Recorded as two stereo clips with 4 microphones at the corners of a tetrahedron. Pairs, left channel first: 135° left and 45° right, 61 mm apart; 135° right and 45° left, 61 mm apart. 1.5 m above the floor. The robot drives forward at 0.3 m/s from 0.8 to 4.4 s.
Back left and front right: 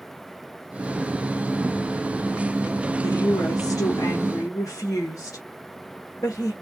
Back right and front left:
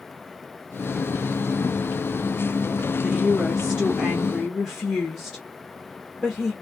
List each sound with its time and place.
3.0 s a woman speaking: 155° left, 1.4 m; by 6.5 s 160° left, 1.8 m